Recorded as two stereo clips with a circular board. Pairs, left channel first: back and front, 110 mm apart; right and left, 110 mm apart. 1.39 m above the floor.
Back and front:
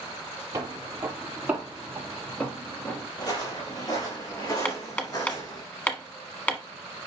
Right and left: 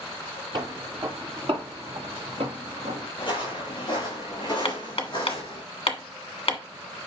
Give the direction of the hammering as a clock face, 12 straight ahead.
4 o'clock.